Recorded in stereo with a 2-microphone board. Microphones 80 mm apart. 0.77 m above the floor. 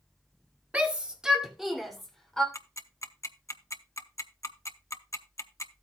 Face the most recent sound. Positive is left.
turn(degrees=40)  # may be behind; listen again after turning